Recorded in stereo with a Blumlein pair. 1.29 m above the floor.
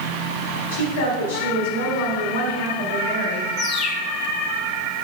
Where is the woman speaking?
70° left, 3 m.